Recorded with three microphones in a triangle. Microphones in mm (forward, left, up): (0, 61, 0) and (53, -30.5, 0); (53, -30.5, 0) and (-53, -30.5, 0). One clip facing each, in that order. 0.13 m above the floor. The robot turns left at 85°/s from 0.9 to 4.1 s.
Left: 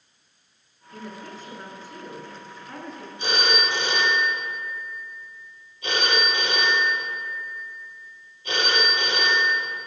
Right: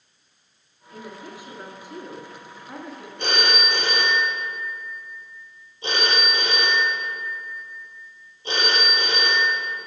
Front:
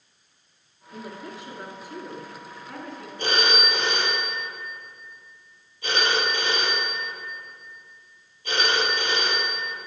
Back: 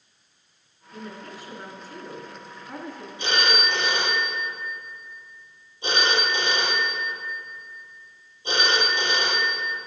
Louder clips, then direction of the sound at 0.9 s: Even, front 1 dB; 35° left.